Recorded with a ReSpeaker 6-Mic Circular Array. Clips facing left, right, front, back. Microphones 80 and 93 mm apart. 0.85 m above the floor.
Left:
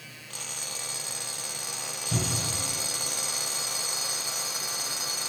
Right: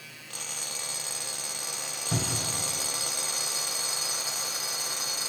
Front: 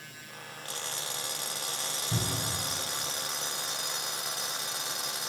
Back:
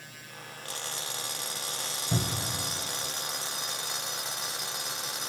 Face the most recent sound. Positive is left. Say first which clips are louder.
# even, back 3 dB
turn(degrees=-150)